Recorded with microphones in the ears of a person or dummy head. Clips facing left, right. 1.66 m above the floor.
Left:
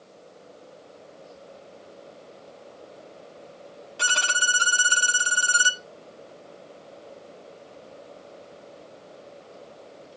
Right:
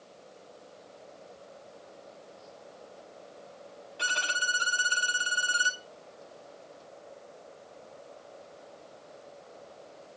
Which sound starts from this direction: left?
A violin, at 4.0 s.